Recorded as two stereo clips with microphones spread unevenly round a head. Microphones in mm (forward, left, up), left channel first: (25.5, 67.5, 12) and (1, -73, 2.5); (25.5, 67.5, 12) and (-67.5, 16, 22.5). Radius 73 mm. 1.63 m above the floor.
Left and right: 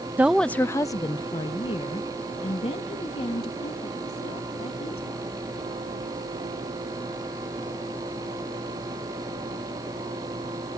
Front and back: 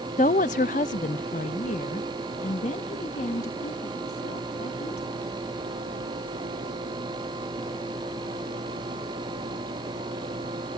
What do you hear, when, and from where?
0.2 s a woman speaking: 20° right; by 5.3 s 35° left